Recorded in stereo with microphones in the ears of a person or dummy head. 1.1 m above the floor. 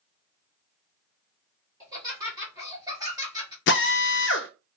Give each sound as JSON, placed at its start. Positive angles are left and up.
{"t": 1.8, "sound": "laughter", "side_deg": -25, "distance_m": 1.4}
{"t": 3.7, "sound": "a drill", "side_deg": 50, "distance_m": 0.5}